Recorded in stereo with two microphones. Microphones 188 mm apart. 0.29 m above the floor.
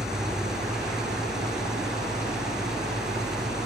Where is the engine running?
5° right (ahead or behind), 5 m.